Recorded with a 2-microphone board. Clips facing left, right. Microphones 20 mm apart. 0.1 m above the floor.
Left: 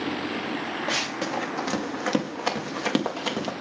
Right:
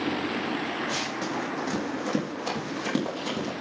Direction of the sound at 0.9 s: 55° left (ahead or behind).